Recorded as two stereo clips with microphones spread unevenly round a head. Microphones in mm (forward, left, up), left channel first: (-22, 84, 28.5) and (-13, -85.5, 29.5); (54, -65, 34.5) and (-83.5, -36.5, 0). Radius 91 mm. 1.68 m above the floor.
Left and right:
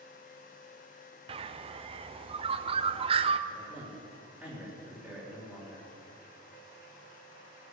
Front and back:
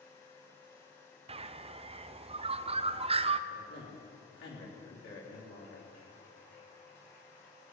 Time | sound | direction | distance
1.3 | a bird | 145° right | 0.5 m
3.5 | a man speaking | 5° right | 3.5 m